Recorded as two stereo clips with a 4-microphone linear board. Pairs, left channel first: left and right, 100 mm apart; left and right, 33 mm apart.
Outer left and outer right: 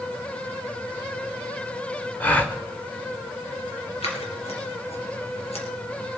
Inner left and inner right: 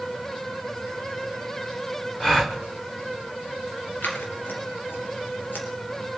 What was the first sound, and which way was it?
A gasp, 15° left (ahead or behind).